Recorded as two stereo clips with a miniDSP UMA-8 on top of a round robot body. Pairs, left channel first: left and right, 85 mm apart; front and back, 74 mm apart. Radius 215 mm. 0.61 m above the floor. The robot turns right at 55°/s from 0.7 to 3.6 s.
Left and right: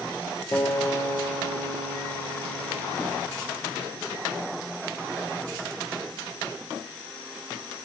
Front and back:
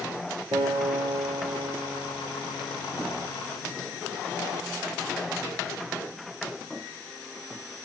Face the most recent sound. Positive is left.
turn(degrees=-30)